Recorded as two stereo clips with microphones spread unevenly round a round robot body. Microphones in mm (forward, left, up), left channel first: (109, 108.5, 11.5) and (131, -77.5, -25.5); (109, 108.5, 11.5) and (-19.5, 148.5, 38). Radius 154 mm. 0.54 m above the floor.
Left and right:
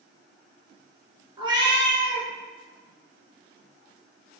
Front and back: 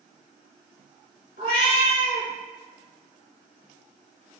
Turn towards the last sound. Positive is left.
turn(degrees=-15)